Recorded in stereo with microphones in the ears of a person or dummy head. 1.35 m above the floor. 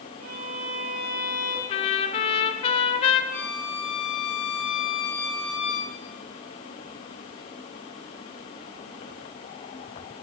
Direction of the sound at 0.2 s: 50° right (ahead or behind).